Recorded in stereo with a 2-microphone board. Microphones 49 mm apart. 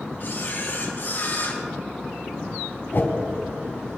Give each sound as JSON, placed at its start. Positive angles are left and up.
{"t": 0.2, "sound": "a camera shutter", "side_deg": 50, "distance_m": 3.5}
{"t": 2.9, "sound": "a whoosh", "side_deg": 50, "distance_m": 1.7}